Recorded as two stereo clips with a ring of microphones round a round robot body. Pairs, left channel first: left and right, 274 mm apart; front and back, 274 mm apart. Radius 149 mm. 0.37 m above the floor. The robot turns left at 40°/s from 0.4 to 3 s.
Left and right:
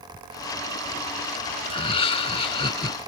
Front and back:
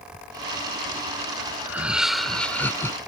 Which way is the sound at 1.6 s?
110° left.